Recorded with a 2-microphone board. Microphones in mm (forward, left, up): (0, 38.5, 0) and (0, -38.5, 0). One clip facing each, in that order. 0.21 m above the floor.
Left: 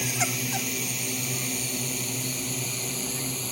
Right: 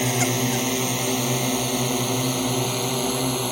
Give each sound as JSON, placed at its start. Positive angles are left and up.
{"t": 0.0, "sound": "a drone", "side_deg": -55}